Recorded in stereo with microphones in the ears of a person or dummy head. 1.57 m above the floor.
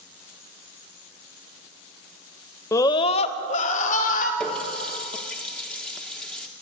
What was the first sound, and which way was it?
A scream, 15° left (ahead or behind).